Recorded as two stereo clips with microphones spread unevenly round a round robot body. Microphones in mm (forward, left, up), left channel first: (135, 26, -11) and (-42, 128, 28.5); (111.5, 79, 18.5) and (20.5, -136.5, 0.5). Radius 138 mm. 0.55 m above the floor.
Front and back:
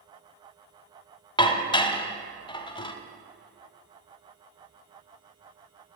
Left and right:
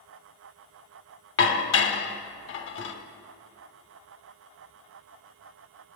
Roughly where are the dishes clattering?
Ahead left.